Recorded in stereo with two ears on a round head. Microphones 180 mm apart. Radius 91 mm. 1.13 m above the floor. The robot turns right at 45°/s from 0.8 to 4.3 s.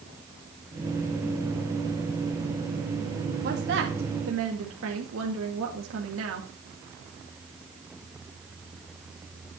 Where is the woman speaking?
125° right, 2 m; by 6.5 s 85° right, 2 m.